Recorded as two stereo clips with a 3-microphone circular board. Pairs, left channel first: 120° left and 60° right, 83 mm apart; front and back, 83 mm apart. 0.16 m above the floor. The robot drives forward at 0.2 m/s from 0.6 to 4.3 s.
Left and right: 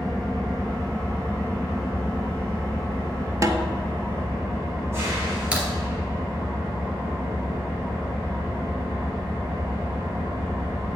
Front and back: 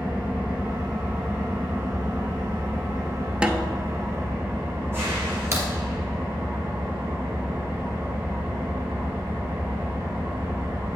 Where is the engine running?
110° right, 3.5 m; by 11.0 s 120° right, 4 m.